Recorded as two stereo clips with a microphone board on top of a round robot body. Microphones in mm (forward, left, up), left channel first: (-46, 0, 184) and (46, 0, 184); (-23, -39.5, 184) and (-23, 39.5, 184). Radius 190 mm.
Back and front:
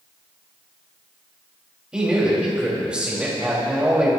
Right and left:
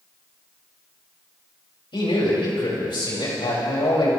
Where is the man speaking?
80° right, 5.5 m.